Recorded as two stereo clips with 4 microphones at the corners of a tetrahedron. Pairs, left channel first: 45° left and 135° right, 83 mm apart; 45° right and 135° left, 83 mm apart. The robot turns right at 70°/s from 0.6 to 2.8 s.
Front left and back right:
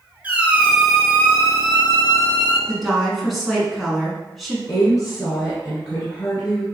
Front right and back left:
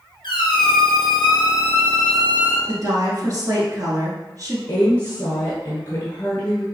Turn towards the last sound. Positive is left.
turn(degrees=10)